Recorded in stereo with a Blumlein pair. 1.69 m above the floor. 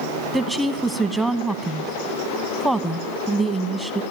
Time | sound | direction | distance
0.3 | a woman speaking | 10° right | 1.0 m